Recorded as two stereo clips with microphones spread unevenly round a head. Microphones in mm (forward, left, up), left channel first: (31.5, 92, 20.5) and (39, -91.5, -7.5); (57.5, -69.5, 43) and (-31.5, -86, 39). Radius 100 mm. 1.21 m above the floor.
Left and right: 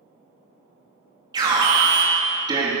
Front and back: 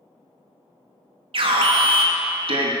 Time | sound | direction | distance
1.3 | an alarm | 160° right | 2.5 m